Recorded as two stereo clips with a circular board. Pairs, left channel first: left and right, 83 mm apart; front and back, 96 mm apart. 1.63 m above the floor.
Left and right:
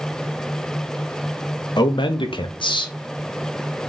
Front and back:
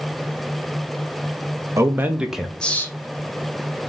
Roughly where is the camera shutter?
I don't hear a camera shutter.